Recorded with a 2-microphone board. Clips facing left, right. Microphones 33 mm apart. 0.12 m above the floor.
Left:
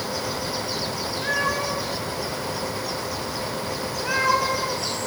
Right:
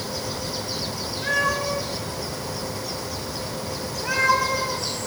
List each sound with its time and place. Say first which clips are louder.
1.2 s a cat meowing: right 2 dB; 25° left (ahead or behind), 3 m